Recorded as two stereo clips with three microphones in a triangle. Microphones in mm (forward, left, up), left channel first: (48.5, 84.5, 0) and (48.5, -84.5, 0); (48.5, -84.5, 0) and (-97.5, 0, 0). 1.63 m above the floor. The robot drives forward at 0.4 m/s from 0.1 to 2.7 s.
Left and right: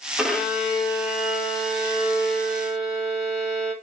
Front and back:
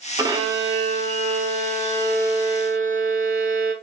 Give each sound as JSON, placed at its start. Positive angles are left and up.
{"t": 0.2, "sound": "a violin", "azimuth_deg": -175, "distance_m": 0.8}